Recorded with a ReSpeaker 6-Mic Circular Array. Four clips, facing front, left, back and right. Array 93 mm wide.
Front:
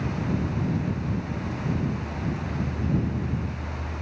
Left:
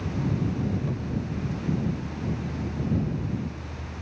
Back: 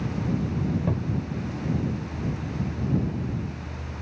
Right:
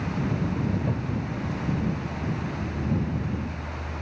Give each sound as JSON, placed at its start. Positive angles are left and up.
{"t": 0.9, "sound": "a cupboard door", "azimuth_deg": -155}